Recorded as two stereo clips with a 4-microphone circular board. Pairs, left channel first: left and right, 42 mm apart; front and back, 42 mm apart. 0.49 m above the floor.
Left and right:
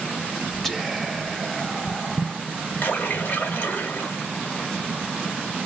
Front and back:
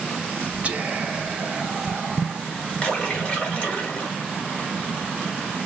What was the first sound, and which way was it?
Whispering, 170° left.